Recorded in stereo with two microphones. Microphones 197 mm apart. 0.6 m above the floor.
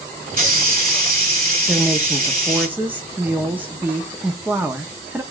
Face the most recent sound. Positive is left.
turn(degrees=-10)  # may be behind; listen again after turning